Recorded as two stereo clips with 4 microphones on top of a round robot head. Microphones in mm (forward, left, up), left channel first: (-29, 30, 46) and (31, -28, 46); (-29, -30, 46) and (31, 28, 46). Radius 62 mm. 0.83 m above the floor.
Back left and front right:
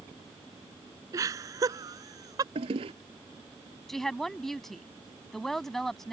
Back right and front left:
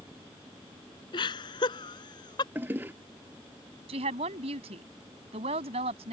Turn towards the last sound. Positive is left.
turn(degrees=50)